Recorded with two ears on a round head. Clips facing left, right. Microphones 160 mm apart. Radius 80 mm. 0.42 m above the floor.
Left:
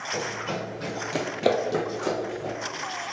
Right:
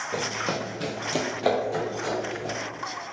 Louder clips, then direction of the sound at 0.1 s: Right 1 dB; 65° right (ahead or behind).